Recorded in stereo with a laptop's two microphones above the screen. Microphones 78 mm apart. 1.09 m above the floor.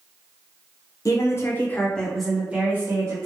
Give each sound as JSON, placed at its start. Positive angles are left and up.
{"t": 1.1, "sound": "a woman speaking", "side_deg": 40, "distance_m": 0.9}